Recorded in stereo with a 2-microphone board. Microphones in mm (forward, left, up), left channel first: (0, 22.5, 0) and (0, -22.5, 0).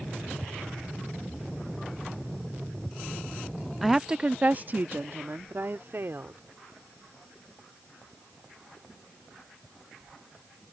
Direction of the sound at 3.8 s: Centre (ahead or behind).